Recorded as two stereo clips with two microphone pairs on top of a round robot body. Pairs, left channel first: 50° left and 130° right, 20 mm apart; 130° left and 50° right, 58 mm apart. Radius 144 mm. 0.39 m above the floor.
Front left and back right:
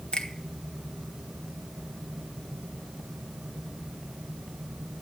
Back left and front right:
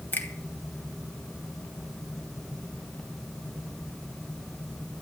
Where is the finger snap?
80° left, 2.5 m.